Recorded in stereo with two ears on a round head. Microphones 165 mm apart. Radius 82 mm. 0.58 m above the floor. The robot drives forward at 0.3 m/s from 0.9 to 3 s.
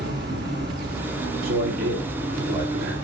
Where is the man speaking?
55° right (ahead or behind), 1.6 m; by 3.0 s 50° right (ahead or behind), 1.7 m.